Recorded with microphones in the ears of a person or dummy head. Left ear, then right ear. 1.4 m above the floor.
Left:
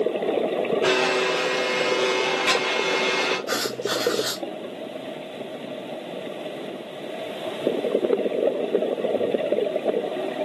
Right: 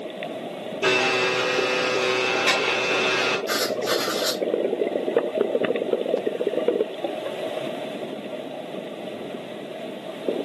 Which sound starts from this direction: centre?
Writing, at 3.5 s.